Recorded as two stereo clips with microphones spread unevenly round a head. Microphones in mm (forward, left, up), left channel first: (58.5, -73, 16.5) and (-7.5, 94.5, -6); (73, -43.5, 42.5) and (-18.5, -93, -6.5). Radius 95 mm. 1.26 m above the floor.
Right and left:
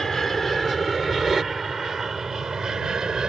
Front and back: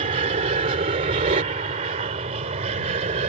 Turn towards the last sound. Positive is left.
turn(degrees=-160)